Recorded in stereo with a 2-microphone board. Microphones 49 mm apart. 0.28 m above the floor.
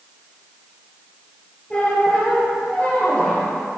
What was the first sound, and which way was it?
A squeak, 20° left (ahead or behind).